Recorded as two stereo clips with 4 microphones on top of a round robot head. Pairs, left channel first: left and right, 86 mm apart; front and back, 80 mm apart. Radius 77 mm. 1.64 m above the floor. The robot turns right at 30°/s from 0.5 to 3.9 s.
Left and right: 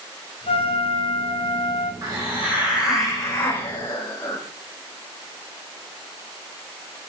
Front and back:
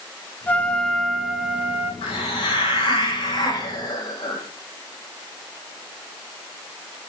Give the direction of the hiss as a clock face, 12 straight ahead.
1 o'clock.